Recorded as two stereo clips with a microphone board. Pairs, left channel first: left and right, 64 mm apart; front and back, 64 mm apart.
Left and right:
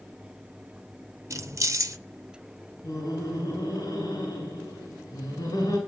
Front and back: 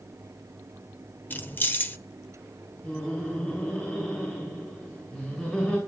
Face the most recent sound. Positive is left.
turn(degrees=70)